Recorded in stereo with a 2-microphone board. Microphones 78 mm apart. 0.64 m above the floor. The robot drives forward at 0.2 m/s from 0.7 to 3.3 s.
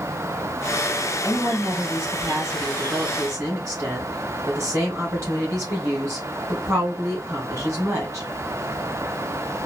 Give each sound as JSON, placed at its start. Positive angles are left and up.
{"t": 1.2, "sound": "a woman speaking", "side_deg": -40, "distance_m": 2.5}